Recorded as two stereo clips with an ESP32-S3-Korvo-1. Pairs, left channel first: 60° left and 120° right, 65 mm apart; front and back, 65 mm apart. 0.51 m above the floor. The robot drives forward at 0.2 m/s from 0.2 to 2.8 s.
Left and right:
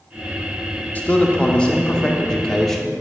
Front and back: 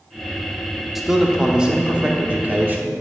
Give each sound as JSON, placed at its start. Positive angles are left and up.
{"t": 0.9, "sound": "a man speaking", "azimuth_deg": 95, "distance_m": 0.7}